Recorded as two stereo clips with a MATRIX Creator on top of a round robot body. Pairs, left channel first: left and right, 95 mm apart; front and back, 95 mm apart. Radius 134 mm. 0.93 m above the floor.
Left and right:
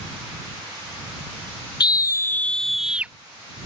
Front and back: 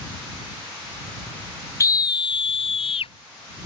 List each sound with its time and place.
1.8 s a scream: 55° left; by 3.1 s 15° right